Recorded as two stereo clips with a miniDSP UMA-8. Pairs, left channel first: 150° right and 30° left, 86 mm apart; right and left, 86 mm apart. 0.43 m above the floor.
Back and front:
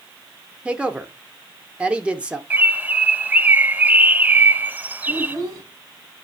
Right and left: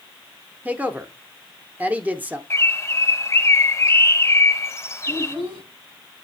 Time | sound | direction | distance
0.7 | a woman speaking | 75° left | 0.7 m
2.5 | a bird | 40° right | 0.6 m
5.1 | a child speaking | 80° left | 3 m